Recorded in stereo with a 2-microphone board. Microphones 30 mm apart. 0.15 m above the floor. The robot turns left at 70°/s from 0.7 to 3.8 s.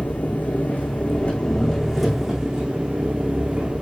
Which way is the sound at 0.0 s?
95° left.